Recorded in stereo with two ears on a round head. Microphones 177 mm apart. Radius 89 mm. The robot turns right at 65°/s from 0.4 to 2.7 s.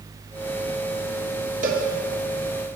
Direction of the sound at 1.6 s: 45° right (ahead or behind).